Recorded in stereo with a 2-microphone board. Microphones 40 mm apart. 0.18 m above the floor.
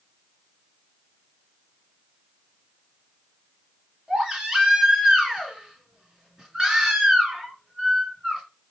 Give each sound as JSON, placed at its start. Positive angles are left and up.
{"t": 4.1, "sound": "a baby crying", "side_deg": -20, "distance_m": 1.8}